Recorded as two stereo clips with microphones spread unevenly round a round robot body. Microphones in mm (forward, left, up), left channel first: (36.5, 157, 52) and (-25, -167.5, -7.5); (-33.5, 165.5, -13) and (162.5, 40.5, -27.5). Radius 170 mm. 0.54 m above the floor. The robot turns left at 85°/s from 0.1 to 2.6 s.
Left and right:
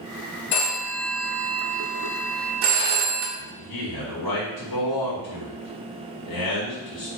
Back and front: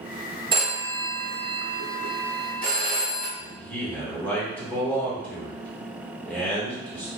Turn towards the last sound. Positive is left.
turn(degrees=65)